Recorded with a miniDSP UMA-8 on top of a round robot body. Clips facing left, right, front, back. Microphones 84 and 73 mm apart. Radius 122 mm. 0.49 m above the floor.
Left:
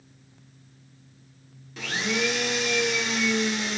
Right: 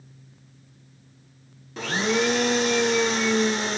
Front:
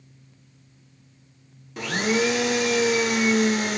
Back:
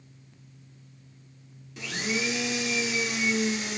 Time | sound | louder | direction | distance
1.8 | a blender | right 4 dB, front 8 dB | 35° right | 0.8 m